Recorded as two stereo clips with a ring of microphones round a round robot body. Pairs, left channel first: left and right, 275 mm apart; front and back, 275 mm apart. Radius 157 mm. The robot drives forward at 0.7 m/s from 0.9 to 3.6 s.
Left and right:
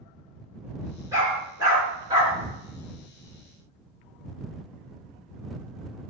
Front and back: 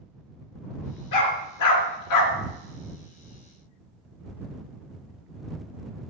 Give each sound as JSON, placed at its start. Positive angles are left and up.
{"t": 1.1, "sound": "a dog barking", "azimuth_deg": -10, "distance_m": 3.5}